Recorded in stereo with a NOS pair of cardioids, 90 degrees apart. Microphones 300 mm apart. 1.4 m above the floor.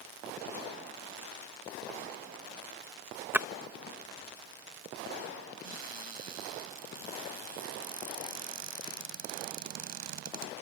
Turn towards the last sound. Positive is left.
turn(degrees=-70)